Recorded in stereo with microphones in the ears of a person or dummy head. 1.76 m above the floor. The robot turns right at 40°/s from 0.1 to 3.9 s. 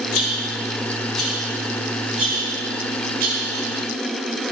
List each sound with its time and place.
0.1 s a rattle: 50° left (ahead or behind), 1.8 m; by 3.7 s 80° right, 1.8 m